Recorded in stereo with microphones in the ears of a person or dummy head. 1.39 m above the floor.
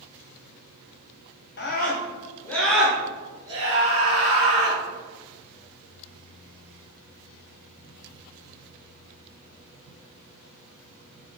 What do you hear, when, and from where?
1.6 s a scream: 50° left (ahead or behind), 0.7 m; by 4.8 s 40° right (ahead or behind), 1.6 m